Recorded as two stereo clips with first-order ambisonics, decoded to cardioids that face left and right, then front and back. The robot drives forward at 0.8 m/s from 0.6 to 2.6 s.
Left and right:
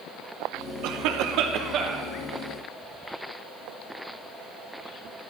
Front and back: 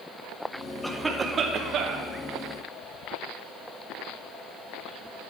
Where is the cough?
85° right, 0.8 m; by 2.1 s 145° right, 1.3 m.